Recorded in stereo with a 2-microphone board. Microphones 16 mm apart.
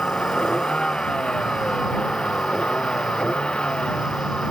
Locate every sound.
0.0 s a vehicle: 65° left (ahead or behind); by 4.5 s 80° left